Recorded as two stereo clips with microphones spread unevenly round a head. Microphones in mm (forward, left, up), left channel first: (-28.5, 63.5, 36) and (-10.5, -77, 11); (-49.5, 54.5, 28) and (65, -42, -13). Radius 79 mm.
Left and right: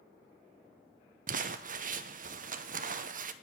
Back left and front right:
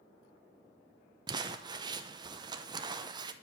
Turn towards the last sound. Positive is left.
turn(degrees=-95)